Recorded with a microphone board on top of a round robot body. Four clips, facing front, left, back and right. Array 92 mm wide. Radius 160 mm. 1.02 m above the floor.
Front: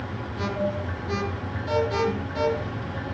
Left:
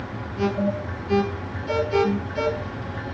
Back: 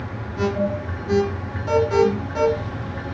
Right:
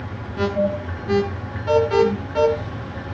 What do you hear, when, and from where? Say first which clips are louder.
0.4 s an alarm: right 3 dB, back 5 dB; 110° right, 9.5 m